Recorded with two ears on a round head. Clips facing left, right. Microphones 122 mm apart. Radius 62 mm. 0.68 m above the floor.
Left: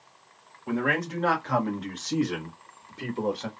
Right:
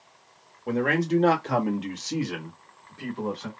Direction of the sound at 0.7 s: 45° right (ahead or behind).